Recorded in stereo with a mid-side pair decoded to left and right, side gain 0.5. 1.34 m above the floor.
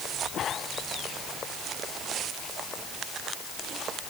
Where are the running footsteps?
No running footsteps in this recording.